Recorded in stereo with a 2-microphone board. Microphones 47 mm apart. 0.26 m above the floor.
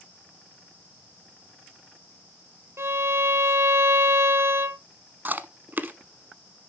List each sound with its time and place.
2.8 s a violin: 65° right (ahead or behind), 0.9 m
5.2 s chewing: 40° right (ahead or behind), 0.9 m